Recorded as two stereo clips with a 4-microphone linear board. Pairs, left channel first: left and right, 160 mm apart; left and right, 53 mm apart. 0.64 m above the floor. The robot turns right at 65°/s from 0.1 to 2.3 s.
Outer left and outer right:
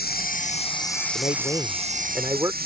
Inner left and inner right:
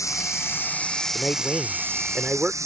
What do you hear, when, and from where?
0.0 s running water: 105° left; by 2.6 s 110° right
1.1 s a man speaking: 130° left; by 2.5 s 155° right